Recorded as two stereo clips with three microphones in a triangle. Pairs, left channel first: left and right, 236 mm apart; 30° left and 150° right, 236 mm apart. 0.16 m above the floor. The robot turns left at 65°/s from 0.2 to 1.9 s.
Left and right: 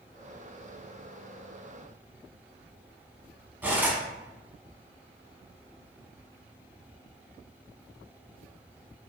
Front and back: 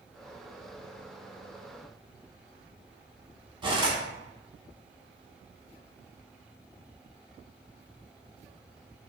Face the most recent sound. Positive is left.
turn(degrees=-160)